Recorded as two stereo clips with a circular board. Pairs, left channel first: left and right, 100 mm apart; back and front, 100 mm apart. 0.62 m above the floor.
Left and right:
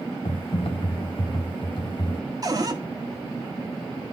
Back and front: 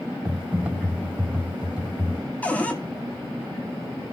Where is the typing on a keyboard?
75° left, 1.4 m.